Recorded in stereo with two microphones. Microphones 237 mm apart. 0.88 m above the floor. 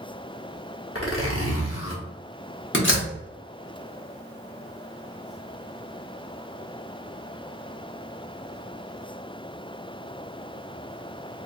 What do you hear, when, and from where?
0.9 s a zipper: 65° left (ahead or behind), 1.1 m
2.7 s a door slam: 55° left (ahead or behind), 1.2 m